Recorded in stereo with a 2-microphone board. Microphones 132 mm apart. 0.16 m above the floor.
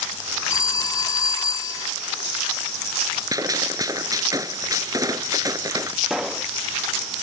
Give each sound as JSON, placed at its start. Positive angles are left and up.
{"t": 0.5, "sound": "a phone ringing", "side_deg": 25}
{"t": 3.3, "sound": "a gunshot", "side_deg": -30}
{"t": 6.0, "sound": "a pop", "side_deg": -5}